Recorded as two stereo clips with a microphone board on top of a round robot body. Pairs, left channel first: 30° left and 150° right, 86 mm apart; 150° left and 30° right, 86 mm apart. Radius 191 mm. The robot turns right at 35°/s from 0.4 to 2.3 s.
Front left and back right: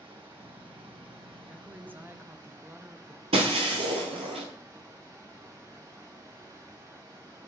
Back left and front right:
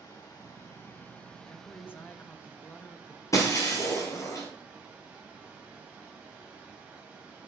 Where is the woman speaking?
160° left, 1.1 m; by 3.2 s 170° right, 1.1 m.